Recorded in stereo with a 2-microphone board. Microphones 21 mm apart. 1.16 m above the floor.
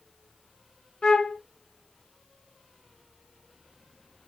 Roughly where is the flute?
Left.